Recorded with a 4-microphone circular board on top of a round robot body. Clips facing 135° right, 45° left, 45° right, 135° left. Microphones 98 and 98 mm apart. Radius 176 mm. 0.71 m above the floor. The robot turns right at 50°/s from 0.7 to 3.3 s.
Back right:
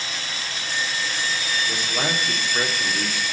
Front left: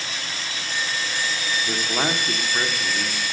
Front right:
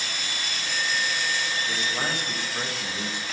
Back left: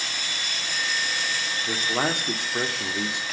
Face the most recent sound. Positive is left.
turn(degrees=165)